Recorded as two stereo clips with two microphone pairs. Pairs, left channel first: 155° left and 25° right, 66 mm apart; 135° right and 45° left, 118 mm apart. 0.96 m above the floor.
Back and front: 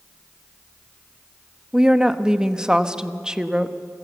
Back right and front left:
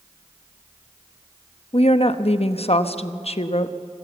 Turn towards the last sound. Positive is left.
turn(degrees=-105)